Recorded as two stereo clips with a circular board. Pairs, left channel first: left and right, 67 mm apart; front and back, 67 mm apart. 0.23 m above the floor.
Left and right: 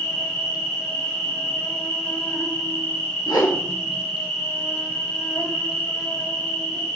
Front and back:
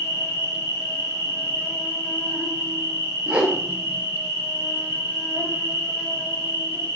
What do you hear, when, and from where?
0.0 s an insect: 45° left, 0.9 m
3.3 s a whoosh: 110° left, 0.6 m